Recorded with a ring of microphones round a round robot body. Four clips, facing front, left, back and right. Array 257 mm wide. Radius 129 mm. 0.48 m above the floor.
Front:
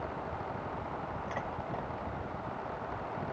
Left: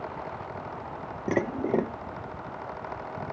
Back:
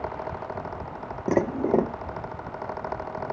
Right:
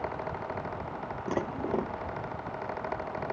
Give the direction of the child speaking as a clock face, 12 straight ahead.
I don't hear a child speaking.